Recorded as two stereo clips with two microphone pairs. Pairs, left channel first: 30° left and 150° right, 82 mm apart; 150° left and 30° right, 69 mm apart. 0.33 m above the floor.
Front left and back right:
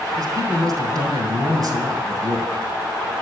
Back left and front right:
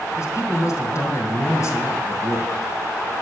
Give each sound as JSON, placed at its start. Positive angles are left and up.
{"t": 0.2, "sound": "a man speaking", "azimuth_deg": 180, "distance_m": 3.0}